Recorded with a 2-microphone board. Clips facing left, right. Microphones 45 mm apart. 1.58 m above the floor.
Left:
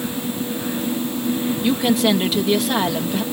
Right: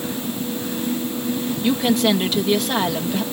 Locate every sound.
1.6 s a woman speaking: centre (ahead or behind)